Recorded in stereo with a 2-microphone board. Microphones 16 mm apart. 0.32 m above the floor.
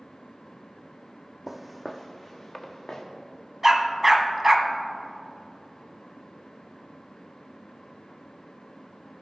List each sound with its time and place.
1.5 s footsteps: 25° right (ahead or behind), 0.7 m; by 3.0 s 35° left (ahead or behind), 1.9 m
3.6 s a dog barking: 10° right (ahead or behind), 0.9 m